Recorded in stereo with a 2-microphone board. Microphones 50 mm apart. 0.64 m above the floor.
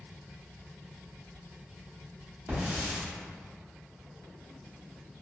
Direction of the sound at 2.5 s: 35° right (ahead or behind).